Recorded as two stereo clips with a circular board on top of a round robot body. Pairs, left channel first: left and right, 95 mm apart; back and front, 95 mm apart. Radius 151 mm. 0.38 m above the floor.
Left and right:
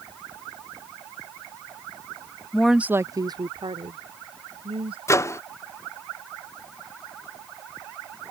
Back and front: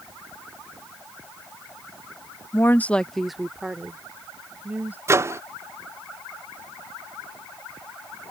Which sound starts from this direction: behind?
A woman speaking, at 2.5 s.